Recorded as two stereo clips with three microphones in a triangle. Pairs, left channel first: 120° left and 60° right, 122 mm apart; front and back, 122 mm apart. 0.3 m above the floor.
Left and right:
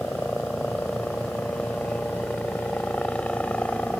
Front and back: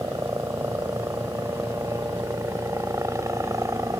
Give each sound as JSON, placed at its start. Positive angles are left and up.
{"t": 0.0, "sound": "a helicopter", "azimuth_deg": -170}